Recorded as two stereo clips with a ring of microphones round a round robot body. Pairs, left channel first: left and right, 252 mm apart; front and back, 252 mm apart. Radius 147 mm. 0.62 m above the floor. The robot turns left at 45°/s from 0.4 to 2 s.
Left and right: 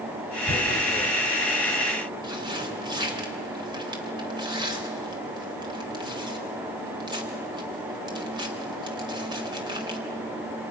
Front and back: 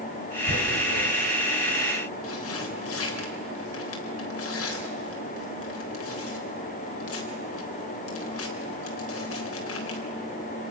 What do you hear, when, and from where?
0.5 s tearing paper: 50° left, 4 m; by 10.0 s 20° right, 4 m